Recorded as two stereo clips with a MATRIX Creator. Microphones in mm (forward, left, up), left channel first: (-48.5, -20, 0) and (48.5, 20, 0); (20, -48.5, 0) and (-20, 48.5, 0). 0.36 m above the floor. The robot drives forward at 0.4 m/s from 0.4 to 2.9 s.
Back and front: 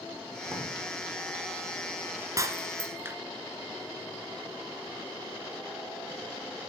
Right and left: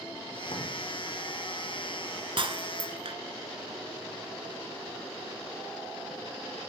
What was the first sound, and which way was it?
A drawer, 40° right.